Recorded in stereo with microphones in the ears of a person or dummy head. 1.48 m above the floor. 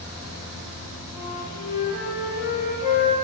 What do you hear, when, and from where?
1.1 s a flute: 40° left (ahead or behind), 1.4 m